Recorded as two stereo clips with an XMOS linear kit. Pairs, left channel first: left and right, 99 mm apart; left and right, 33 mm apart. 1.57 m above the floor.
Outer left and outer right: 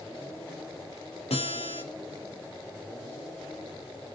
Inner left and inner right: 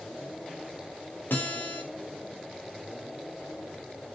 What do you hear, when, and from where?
1.3 s a guitar: 85° left, 5 m